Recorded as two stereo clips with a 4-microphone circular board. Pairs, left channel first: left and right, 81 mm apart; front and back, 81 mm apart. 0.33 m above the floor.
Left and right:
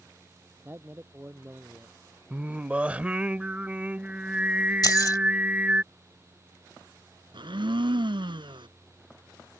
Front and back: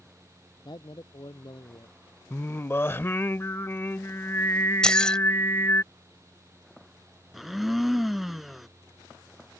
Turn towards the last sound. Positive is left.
turn(degrees=-90)